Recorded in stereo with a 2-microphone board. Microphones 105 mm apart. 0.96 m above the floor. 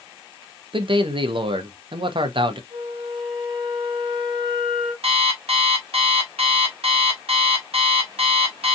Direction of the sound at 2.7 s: 65° right (ahead or behind).